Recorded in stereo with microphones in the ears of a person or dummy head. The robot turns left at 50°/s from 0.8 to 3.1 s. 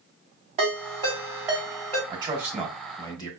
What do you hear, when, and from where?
0.6 s a ringtone: 45° right (ahead or behind), 2.5 m; by 2.0 s 10° left (ahead or behind), 2.5 m
2.1 s a man speaking: 145° right, 1.2 m; by 3.3 s 165° left, 1.2 m